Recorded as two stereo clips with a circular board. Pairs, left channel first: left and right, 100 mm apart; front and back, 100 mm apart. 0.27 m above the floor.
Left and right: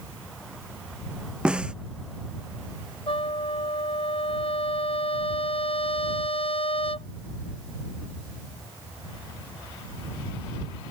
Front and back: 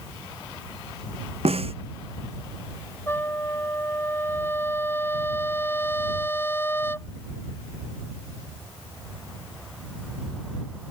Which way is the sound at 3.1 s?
65° left.